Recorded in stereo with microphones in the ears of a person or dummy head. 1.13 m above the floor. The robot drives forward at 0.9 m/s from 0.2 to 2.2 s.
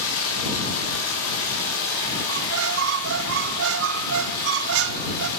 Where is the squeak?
70° right (ahead or behind), 0.7 m.